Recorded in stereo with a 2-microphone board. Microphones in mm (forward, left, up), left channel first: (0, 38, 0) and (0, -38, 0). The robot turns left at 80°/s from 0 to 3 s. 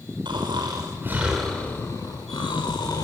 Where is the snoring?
90° right, 5.5 m; by 3.0 s 50° left, 5.5 m.